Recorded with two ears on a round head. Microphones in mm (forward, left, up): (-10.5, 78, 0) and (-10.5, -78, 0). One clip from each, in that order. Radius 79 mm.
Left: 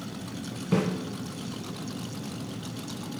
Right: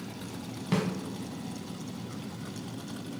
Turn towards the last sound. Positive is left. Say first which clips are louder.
# left 3 dB
turn(degrees=-45)  # may be behind; listen again after turning